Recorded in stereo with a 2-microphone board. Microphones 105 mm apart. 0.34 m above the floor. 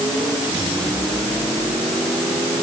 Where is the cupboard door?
No cupboard door in this recording.